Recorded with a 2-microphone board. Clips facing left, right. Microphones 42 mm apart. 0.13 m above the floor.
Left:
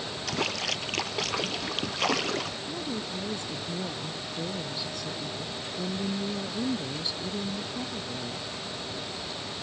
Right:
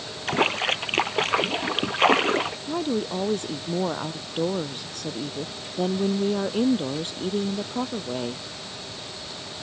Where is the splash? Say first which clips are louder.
Right 8 dB; 35° right (ahead or behind).